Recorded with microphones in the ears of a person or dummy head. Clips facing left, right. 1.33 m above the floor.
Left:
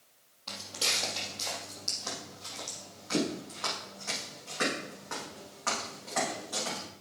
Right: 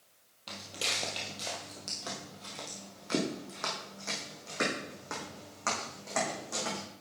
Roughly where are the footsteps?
Right.